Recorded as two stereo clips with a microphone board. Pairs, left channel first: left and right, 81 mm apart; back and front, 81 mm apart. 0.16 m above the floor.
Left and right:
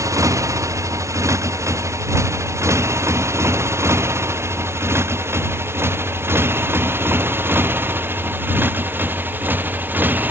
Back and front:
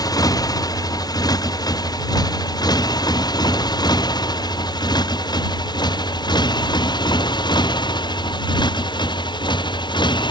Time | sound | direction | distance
0.0 | a motorcycle | 140° right | ?